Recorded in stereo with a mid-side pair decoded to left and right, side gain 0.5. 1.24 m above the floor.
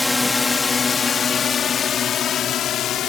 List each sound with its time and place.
0.0 s a drone: 15° left; by 3.1 s 65° left